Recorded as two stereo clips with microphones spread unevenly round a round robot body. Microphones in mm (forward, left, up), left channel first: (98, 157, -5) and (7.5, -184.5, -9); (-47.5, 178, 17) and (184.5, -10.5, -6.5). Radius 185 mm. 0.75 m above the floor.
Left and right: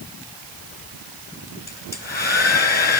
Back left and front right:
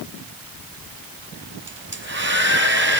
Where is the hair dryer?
10° left, 8.5 m.